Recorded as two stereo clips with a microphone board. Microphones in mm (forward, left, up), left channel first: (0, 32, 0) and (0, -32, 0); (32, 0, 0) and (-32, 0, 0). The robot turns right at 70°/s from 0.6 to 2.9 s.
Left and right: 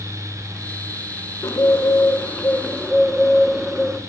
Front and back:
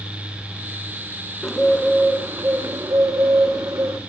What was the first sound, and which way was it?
A bird, 80° left.